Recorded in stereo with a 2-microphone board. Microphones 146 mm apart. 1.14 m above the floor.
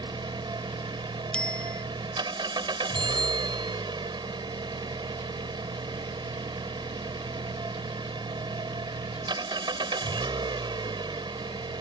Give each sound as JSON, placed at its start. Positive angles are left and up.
{"t": 0.0, "sound": "an engine running", "side_deg": -30}
{"t": 1.3, "sound": "a bicycle bell", "side_deg": 5}
{"t": 3.0, "sound": "a bicycle bell", "side_deg": -30}